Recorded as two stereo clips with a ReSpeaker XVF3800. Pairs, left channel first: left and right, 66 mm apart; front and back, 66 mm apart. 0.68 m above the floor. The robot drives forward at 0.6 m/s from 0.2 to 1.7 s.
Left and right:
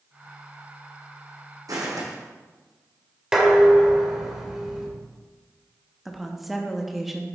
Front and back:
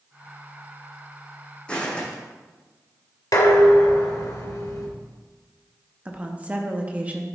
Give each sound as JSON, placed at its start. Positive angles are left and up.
{"t": 1.7, "sound": "footsteps", "azimuth_deg": -75, "distance_m": 2.5}
{"t": 3.3, "sound": "dishes clattering", "azimuth_deg": -10, "distance_m": 1.6}
{"t": 6.0, "sound": "a woman speaking", "azimuth_deg": -175, "distance_m": 0.9}